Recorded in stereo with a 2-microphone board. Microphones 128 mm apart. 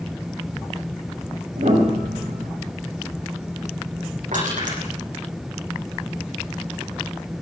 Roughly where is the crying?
I don't hear crying.